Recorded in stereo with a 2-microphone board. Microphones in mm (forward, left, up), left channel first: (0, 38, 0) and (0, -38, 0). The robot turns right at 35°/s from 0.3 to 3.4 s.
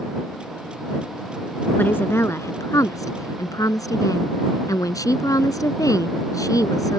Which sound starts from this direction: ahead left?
A woman speaking, at 1.8 s.